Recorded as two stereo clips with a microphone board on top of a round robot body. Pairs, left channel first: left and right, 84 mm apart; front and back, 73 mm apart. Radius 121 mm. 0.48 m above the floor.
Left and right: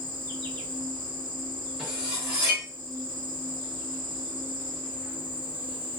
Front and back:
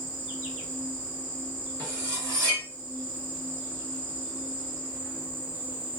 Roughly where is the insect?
Behind left.